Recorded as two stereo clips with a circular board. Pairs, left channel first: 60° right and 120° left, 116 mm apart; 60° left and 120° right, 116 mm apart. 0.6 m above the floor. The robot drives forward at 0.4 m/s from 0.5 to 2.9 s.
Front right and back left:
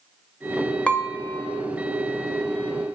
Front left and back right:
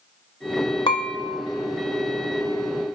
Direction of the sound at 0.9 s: 20° left.